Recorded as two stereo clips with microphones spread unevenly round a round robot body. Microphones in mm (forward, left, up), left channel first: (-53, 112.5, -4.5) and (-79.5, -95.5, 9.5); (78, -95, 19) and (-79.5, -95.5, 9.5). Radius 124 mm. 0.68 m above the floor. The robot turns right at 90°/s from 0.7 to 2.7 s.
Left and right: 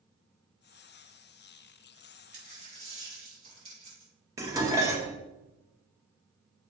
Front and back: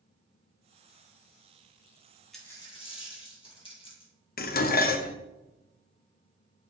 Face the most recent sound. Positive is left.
turn(degrees=-20)